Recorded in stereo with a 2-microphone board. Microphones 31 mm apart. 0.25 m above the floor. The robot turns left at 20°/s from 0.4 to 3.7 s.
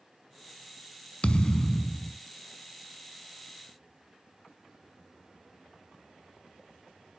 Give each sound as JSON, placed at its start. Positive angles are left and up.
{"t": 1.2, "sound": "a thud", "side_deg": 35, "distance_m": 0.7}